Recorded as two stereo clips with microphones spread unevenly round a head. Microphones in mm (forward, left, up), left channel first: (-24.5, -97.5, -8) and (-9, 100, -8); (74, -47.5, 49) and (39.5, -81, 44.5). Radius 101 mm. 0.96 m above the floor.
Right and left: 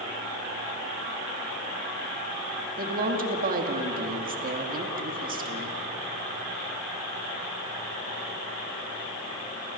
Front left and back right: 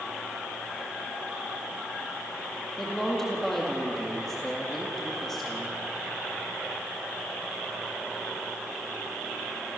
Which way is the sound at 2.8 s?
130° left.